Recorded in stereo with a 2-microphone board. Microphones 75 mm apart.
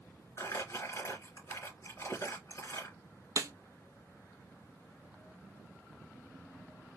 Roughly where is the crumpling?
Left.